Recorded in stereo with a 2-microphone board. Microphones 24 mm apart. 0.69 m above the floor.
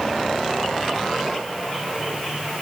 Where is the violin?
No violin in this recording.